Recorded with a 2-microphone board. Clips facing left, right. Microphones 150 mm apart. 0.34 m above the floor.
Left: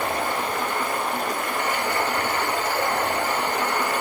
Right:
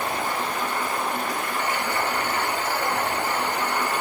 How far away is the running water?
About 1.1 m.